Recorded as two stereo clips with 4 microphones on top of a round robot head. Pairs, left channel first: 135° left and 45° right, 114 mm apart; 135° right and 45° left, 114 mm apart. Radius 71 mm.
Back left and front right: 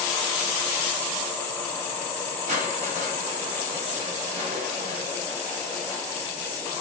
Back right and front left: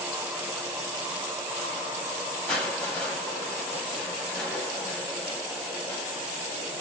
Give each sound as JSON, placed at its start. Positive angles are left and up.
{"t": 2.5, "sound": "crushing", "azimuth_deg": -55, "distance_m": 1.0}